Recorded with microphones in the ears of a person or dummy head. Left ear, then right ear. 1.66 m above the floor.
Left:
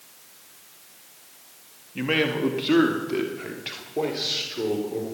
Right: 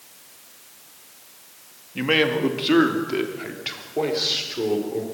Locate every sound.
1.9 s a man speaking: 5° right (ahead or behind), 2 m